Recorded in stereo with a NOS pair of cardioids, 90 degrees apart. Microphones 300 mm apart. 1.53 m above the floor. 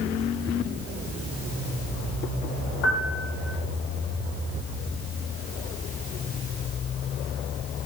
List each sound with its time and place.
2.8 s a piano: 60° left, 2 m